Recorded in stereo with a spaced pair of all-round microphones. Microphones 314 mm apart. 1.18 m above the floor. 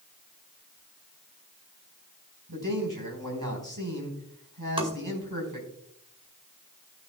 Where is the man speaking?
85° right, 5 m.